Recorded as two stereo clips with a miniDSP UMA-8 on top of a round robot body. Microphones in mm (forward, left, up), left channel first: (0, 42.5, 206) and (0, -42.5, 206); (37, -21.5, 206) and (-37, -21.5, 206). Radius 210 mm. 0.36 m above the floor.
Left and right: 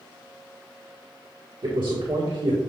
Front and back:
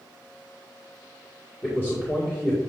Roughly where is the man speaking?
Ahead right.